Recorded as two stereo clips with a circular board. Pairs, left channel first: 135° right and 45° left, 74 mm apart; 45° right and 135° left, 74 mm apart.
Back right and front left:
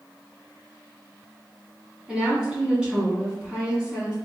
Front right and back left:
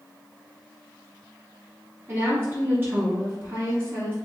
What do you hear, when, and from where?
2.1 s a woman speaking: 110° left, 1.8 m